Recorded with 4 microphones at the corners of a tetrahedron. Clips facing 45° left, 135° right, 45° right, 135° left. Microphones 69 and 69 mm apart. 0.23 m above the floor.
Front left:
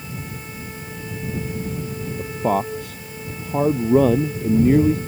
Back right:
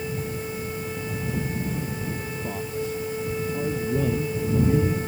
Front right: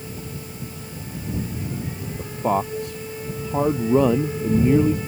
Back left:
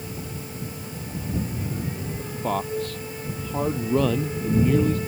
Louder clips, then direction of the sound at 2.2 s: Front left 10 dB, front right 5 dB; 25° left.